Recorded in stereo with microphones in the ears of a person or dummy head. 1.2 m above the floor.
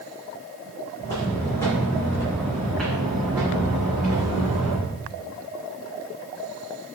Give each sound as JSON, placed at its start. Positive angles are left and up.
{"t": 1.0, "sound": "footsteps", "side_deg": 15, "distance_m": 3.0}